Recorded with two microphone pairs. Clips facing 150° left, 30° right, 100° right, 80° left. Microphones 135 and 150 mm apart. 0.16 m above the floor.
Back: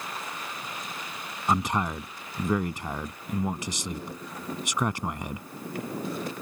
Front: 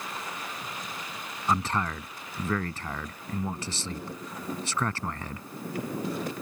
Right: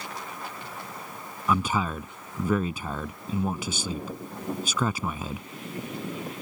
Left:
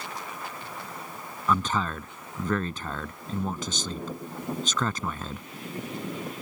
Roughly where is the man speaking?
Behind.